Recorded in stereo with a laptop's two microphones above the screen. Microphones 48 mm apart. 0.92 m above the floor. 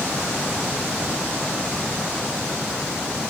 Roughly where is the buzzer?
No buzzer in this recording.